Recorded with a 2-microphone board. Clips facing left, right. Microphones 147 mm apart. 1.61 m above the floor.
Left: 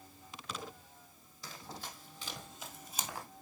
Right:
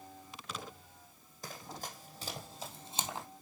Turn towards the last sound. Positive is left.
turn(degrees=-20)  # may be behind; listen again after turning